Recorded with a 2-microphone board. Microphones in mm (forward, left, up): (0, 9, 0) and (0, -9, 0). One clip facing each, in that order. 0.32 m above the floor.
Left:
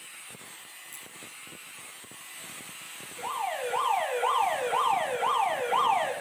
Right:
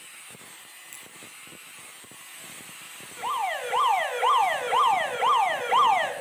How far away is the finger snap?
About 7 m.